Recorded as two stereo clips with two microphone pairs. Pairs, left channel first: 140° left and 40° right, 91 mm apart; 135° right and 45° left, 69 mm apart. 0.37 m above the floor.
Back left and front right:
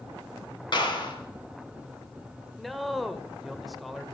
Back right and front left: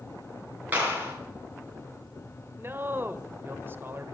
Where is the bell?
No bell in this recording.